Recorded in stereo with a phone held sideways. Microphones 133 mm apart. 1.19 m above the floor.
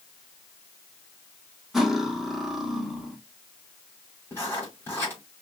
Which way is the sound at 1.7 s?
Centre (ahead or behind).